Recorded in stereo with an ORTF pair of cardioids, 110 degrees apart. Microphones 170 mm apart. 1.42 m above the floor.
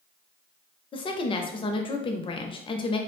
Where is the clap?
I don't hear a clap.